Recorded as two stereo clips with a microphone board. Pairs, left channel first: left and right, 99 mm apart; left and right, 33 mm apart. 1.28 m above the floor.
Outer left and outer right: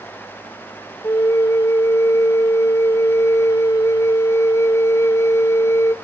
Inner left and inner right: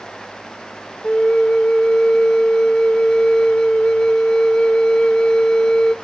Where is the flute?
30° left (ahead or behind), 0.6 m.